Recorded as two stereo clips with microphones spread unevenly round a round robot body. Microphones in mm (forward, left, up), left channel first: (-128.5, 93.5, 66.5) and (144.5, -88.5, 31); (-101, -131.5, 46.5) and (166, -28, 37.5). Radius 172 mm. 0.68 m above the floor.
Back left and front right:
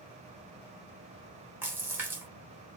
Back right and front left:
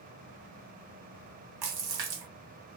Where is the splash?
50° left, 0.8 m.